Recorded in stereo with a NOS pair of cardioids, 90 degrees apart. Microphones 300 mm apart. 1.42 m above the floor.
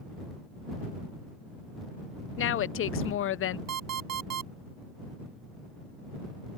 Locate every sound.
2.4 s a woman speaking: 45° left
3.7 s an alarm clock: 65° right